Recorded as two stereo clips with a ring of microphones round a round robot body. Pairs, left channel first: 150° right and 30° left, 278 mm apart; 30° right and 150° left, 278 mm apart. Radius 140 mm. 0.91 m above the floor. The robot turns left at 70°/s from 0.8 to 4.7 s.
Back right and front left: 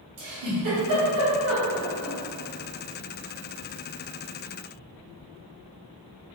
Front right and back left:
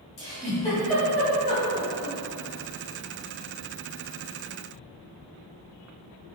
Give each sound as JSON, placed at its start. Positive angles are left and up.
{"t": 0.2, "sound": "a giggle", "azimuth_deg": 40, "distance_m": 1.9}